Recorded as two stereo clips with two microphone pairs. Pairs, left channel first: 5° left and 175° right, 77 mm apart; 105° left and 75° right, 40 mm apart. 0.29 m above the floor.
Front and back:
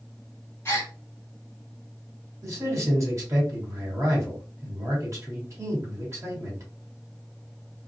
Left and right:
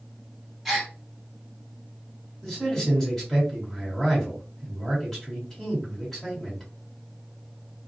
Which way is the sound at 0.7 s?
20° left.